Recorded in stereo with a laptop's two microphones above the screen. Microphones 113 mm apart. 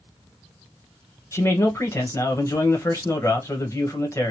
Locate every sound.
1.3 s a man speaking: 25° left (ahead or behind), 1.0 m